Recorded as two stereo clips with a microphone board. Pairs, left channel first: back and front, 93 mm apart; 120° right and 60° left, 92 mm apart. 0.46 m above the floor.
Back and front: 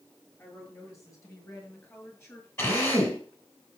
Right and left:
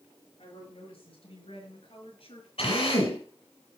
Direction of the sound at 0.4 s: 120° right.